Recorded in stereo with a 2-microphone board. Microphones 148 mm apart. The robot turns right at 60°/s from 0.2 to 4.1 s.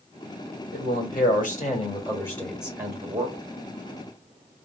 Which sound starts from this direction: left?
A man speaking, at 0.7 s.